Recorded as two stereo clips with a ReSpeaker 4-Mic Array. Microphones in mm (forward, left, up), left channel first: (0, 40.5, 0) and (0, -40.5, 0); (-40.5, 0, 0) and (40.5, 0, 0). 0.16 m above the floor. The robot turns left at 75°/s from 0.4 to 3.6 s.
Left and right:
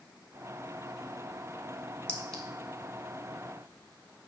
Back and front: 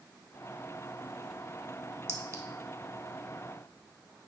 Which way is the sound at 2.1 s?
25° left.